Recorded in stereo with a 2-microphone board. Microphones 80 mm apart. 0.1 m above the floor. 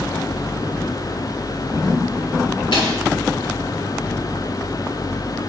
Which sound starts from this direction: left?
A snare drum, at 2.7 s.